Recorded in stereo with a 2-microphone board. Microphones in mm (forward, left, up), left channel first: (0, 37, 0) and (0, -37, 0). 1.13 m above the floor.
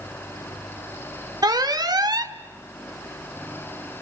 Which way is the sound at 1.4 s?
60° right (ahead or behind).